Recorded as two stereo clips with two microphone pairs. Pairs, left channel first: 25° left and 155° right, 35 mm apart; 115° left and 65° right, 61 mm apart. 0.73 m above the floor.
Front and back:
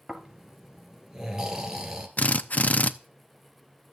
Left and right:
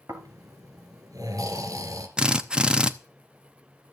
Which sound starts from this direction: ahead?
A drill, at 2.2 s.